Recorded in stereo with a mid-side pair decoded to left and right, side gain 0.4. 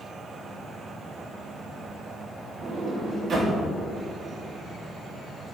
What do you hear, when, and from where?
2.6 s a sliding door: 60° right, 2.5 m